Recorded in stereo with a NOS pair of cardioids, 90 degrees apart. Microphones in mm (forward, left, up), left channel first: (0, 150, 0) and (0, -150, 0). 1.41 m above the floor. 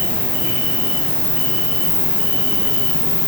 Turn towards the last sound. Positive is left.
turn(degrees=40)